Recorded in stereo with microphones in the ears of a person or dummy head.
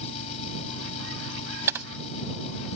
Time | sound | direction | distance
0.0 | an engine running | 40° left (ahead or behind) | ?
1.7 | typing on a keyboard | 10° right (ahead or behind) | ?